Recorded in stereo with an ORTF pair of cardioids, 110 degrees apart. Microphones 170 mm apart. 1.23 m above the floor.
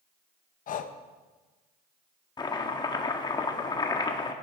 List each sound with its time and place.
0.7 s breathing: 55° left, 0.9 m
2.4 s chopping: 25° left, 1.4 m